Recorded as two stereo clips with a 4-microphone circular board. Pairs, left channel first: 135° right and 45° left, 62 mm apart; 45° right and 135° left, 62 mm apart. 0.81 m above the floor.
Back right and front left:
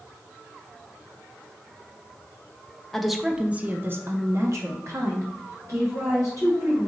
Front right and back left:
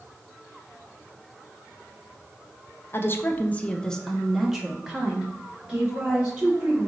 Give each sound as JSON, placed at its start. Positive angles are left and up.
{"t": 2.9, "sound": "a woman speaking", "azimuth_deg": -55, "distance_m": 0.6}